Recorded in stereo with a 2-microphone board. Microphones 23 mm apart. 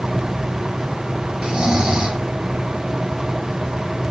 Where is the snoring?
50° right (ahead or behind), 1.0 m.